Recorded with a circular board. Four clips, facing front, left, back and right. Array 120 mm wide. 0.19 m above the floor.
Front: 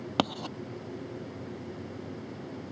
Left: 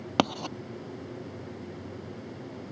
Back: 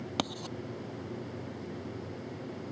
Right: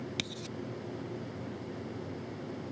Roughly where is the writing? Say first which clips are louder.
Left 14 dB, front 7 dB; left.